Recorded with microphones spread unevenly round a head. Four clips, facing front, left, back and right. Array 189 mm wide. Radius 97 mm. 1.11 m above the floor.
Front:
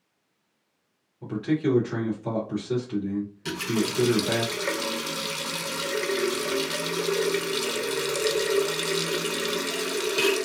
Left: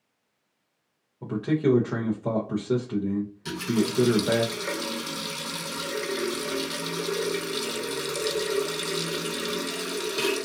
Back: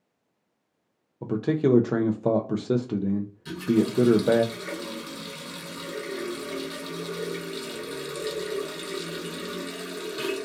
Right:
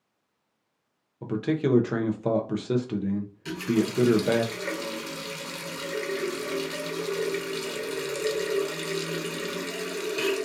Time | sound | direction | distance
1.2 | a man speaking | 175° right | 0.5 m
3.5 | a running tap | 10° right | 0.6 m